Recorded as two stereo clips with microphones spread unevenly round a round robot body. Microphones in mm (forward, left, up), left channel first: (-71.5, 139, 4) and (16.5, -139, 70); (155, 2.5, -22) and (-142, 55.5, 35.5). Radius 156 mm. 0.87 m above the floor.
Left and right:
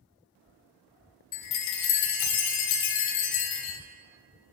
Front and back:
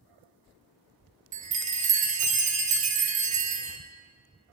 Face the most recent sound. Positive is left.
turn(degrees=120)